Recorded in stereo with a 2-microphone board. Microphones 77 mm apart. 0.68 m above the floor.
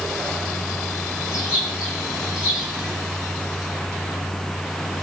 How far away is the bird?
About 5 m.